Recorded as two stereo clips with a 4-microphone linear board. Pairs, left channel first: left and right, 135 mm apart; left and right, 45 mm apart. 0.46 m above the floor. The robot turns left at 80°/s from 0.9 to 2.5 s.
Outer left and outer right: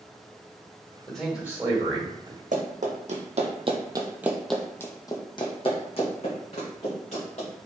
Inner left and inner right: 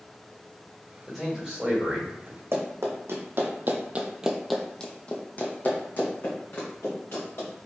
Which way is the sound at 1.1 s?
10° left.